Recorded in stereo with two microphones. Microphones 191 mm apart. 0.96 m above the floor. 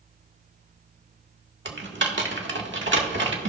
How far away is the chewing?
No chewing in this recording.